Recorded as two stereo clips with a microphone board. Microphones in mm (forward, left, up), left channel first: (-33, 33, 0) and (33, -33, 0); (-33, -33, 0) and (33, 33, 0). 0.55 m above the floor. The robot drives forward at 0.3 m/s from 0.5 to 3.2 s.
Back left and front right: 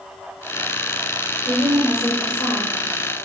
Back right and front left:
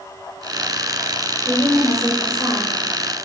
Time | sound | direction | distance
1.4 | a woman speaking | 125° left | 1.5 m